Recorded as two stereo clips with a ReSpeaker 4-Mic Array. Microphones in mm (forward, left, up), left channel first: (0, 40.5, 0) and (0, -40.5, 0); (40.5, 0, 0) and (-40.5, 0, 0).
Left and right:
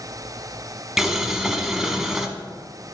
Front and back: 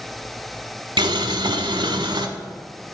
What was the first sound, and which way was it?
Boiling, 175° right.